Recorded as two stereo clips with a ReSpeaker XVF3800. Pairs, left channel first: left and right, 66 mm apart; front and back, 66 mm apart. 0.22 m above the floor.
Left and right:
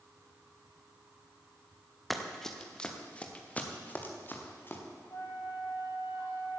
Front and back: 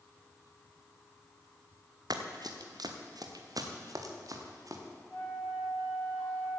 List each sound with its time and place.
2.1 s running footsteps: straight behind, 2.0 m; by 4.8 s 150° left, 3 m
5.1 s a flute: 65° left, 4 m